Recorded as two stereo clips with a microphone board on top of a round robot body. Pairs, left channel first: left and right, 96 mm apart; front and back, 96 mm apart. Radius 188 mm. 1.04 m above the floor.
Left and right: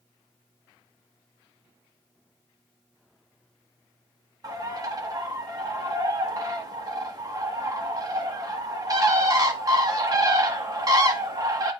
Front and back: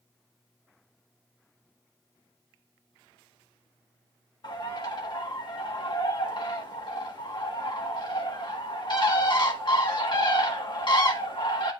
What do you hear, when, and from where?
4.4 s a bird: 40° right, 1.7 m